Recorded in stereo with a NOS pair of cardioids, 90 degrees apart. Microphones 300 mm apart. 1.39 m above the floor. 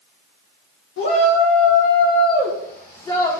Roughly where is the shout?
Ahead left.